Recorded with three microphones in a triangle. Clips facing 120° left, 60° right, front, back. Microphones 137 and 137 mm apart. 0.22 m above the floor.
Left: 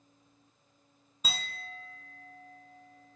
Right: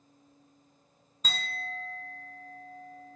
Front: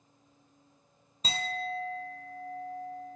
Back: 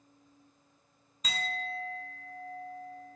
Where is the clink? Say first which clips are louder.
Right 3 dB, front 3 dB; 45° left, 1.0 m.